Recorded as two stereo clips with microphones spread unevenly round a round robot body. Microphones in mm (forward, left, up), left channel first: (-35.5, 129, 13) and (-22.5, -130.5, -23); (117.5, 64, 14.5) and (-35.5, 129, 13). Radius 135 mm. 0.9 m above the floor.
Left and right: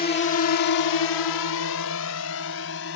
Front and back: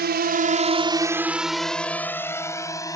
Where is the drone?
150° left; by 3.0 s 45° left.